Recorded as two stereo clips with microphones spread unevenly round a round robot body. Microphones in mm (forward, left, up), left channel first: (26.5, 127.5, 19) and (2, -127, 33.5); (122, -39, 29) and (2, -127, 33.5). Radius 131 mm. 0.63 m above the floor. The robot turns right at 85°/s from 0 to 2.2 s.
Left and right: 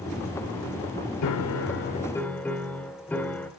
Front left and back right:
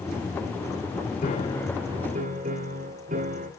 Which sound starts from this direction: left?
A piano, at 1.2 s.